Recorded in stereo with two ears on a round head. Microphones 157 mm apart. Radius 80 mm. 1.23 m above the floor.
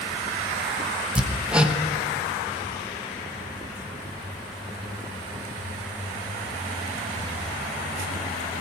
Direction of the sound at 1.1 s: 5° right (ahead or behind).